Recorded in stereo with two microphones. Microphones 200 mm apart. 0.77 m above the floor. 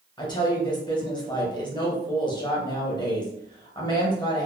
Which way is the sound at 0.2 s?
20° left (ahead or behind).